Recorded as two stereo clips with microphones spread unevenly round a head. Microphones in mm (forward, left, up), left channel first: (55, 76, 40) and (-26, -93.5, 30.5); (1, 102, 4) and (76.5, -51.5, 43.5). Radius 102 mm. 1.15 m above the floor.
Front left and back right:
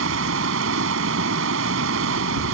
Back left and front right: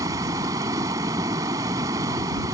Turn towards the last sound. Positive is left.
turn(degrees=-135)